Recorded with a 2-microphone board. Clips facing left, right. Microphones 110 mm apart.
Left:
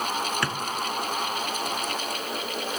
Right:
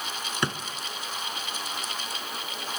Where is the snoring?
I don't hear snoring.